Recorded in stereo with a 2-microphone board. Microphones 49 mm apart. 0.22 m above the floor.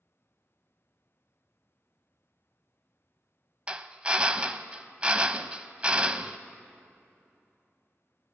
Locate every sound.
3.7 s a drill: 20° right (ahead or behind), 0.5 m